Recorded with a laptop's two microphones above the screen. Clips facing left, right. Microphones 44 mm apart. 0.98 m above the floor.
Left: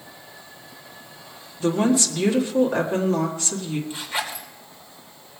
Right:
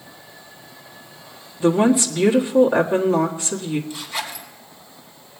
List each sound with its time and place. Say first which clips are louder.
1.6 s a woman speaking: right 4 dB; 15° right (ahead or behind), 1.6 m
3.9 s a zipper: left 1 dB; 35° left (ahead or behind), 2 m